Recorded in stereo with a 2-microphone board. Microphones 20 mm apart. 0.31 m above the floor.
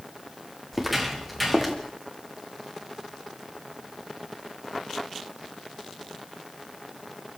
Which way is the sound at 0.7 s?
Centre (ahead or behind).